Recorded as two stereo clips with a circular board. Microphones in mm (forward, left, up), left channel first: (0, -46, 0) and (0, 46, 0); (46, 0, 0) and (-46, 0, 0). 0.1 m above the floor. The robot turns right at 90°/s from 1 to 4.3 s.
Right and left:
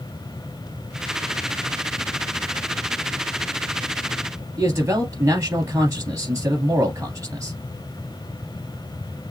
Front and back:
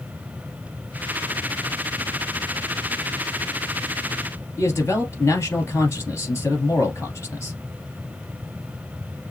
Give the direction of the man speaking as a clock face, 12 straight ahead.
10 o'clock.